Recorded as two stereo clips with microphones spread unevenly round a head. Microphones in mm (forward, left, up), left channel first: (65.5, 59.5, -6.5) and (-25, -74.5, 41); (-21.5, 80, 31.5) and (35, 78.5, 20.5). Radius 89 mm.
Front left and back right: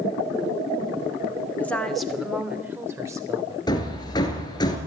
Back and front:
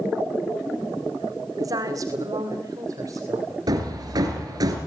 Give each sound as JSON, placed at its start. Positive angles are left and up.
{"t": 1.6, "sound": "a woman speaking", "azimuth_deg": -20, "distance_m": 2.0}
{"t": 3.7, "sound": "hammering", "azimuth_deg": -15, "distance_m": 3.5}